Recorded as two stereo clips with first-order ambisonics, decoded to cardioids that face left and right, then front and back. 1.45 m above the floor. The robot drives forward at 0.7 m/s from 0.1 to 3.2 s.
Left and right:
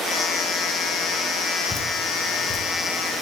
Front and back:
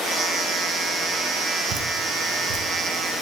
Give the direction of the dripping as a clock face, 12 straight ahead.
7 o'clock.